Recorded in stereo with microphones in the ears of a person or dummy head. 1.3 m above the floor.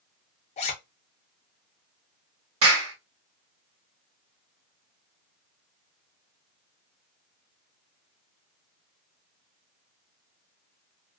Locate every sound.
0.6 s a zipper: 25° left (ahead or behind), 0.6 m
2.6 s a clap: 75° right (ahead or behind), 1.3 m